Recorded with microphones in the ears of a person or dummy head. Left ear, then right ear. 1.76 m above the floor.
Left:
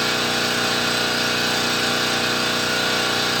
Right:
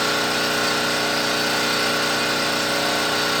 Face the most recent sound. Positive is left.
turn(degrees=-40)  # may be behind; listen again after turning